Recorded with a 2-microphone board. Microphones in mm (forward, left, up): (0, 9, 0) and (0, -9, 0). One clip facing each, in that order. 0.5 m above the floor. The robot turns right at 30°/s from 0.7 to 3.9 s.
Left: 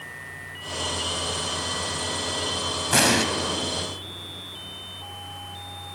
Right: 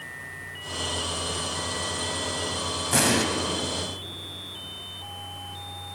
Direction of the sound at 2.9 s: 25° left (ahead or behind).